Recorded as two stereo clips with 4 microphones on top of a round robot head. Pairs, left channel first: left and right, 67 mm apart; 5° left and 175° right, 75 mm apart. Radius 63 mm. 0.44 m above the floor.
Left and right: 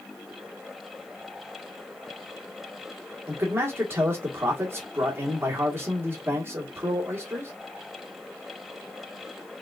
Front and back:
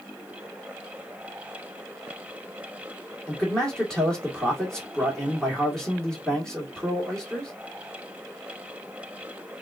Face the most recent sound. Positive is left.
turn(degrees=-75)